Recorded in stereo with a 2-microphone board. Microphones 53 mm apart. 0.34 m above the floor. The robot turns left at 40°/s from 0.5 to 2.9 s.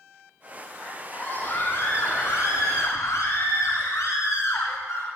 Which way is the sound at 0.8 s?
170° left.